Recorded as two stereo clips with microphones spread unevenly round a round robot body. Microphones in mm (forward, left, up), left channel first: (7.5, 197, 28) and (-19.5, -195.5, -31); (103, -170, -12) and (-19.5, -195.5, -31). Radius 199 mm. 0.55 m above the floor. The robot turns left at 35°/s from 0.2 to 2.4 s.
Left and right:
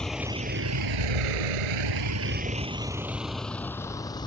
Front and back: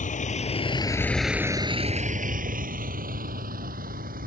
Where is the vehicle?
Straight ahead; by 4.3 s 165° left.